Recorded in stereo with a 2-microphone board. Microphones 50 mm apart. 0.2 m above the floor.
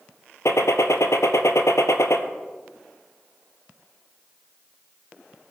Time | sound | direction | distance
0.5 | a gunshot | 75° left (ahead or behind) | 1.0 m